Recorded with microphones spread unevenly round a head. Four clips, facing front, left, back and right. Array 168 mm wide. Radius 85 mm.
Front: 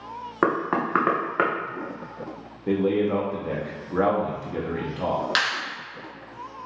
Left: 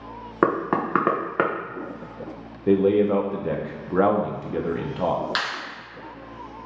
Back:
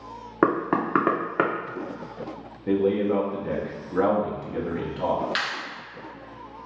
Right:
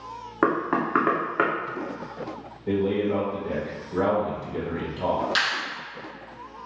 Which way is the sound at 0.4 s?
105° left.